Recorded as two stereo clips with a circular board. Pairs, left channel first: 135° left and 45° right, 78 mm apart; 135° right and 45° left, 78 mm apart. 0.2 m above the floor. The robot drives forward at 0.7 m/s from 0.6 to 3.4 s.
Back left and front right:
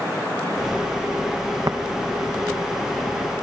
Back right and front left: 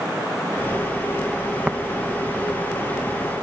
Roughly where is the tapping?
Ahead right.